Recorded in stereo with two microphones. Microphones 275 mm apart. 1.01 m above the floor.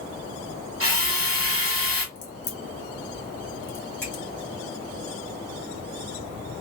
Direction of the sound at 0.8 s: 50° right (ahead or behind).